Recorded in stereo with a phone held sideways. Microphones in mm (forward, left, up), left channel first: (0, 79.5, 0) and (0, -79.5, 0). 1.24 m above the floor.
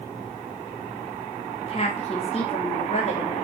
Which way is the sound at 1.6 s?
40° left (ahead or behind).